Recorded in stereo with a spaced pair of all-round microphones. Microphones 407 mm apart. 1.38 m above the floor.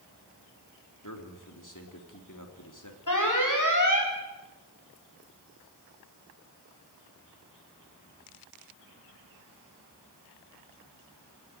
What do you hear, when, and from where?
1.0 s a man speaking: 50° left (ahead or behind), 3 m
3.1 s an alarm: 45° left (ahead or behind), 3.5 m